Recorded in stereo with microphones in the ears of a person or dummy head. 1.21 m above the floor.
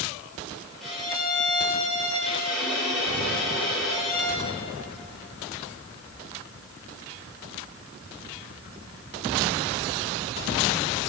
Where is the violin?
Centre (ahead or behind), 4 m.